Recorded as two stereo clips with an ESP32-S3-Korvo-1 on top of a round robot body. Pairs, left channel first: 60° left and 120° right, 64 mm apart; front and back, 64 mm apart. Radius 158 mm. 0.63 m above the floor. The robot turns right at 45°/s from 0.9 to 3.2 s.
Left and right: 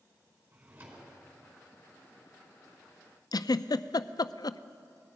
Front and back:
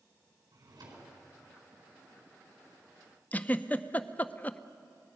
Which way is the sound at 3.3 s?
65° left.